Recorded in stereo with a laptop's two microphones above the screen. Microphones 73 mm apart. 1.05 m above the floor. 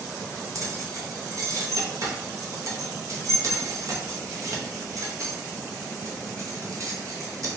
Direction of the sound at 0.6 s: 45° right (ahead or behind).